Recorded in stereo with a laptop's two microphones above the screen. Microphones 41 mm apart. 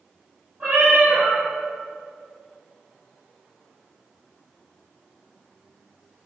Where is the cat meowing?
30° right (ahead or behind), 1.7 m.